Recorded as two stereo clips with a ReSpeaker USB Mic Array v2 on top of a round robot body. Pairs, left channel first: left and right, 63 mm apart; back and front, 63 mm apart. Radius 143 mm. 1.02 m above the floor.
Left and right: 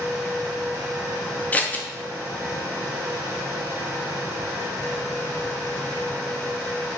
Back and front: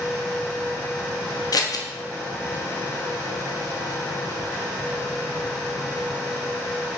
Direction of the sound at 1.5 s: 155° left.